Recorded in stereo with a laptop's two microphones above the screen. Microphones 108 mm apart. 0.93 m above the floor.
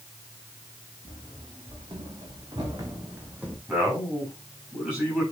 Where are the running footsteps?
50° right (ahead or behind), 4.5 m; by 3.6 s 10° right (ahead or behind), 1.6 m.